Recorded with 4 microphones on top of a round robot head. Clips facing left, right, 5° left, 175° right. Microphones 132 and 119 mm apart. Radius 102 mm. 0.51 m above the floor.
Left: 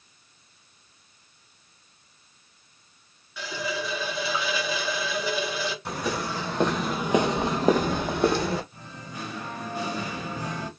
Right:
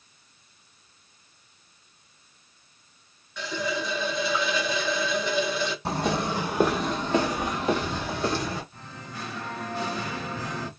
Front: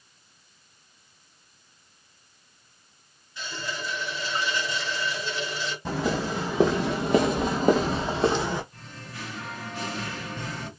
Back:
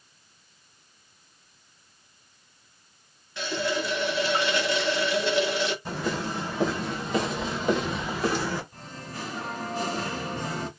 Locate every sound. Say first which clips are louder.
3.4 s a running tap: right 2 dB, back 7 dB; 175° left, 0.6 m
5.8 s footsteps: right 5 dB, front 3 dB; 35° right, 1.0 m; by 8.6 s 75° left, 1.1 m
8.7 s singing: left 1 dB, back 3 dB; 160° left, 1.3 m